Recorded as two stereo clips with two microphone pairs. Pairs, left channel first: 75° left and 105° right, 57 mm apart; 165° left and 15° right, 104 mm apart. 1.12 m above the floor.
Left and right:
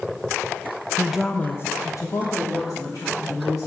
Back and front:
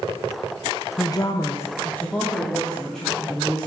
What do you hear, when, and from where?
1.0 s a woman speaking: 160° right, 0.6 m; by 3.7 s 80° left, 3 m